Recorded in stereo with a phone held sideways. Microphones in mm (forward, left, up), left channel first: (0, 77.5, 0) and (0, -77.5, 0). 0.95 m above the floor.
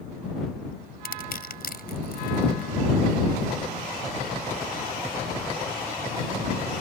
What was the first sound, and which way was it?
Crushing, 70° left (ahead or behind).